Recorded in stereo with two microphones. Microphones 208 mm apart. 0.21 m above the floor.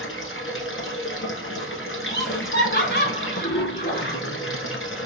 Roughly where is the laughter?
Left.